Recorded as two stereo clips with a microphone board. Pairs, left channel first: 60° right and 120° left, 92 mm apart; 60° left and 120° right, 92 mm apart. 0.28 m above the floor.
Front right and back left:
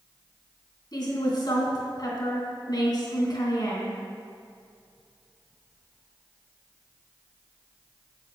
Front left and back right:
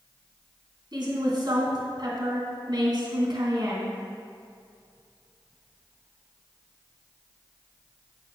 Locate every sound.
0.9 s a woman speaking: 90° right, 2.5 m